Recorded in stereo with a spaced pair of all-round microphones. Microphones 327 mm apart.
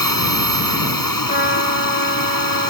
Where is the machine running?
85° left.